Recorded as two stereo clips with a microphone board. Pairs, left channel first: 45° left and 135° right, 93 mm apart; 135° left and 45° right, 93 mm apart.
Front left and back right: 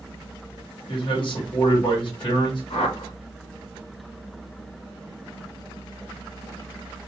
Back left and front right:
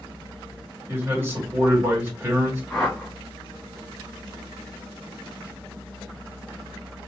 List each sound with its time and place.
0.9 s a man speaking: 20° left, 1.7 m
2.7 s a whoosh: 50° left, 1.3 m